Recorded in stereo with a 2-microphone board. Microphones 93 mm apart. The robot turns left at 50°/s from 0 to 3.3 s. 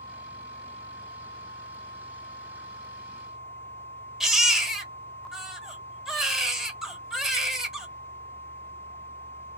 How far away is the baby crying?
About 0.8 m.